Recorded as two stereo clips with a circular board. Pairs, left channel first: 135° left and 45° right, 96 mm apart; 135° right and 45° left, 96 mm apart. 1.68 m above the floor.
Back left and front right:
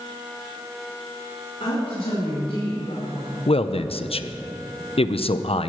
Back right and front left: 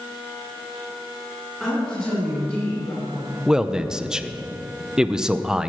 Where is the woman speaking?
140° left, 4.5 m; by 3.4 s 160° left, 6 m.